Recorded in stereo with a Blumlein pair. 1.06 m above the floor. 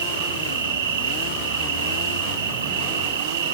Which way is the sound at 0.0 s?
60° right.